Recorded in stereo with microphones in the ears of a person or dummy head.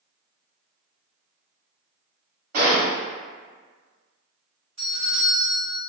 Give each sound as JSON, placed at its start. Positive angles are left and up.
{"t": 2.5, "sound": "a gunshot", "side_deg": -55, "distance_m": 1.6}
{"t": 4.8, "sound": "a doorbell", "side_deg": -40, "distance_m": 1.7}